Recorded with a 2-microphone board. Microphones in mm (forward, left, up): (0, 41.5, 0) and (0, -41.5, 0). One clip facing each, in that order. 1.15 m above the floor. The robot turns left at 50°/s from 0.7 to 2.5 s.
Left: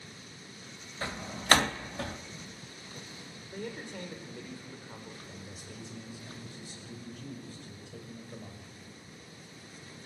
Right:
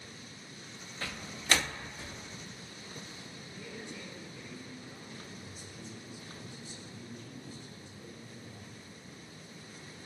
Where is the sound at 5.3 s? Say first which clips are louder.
Left 2 dB; 80° left, 6.5 m.